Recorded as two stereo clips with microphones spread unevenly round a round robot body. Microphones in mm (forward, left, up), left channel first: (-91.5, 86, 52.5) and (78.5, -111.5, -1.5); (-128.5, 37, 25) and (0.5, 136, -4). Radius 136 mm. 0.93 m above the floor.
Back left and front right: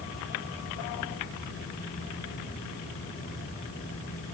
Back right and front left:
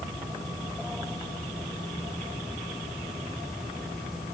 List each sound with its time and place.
Only background noise.